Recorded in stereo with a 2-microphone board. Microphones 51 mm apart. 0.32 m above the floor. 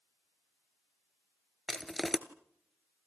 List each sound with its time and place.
1.7 s crushing: 5° left (ahead or behind), 1.3 m